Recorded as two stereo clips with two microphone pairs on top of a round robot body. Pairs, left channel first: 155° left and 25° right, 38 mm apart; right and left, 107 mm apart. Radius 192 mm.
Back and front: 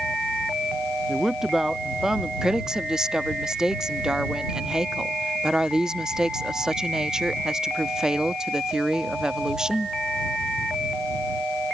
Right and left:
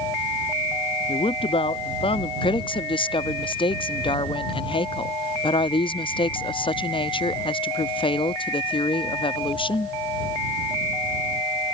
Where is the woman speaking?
95° right.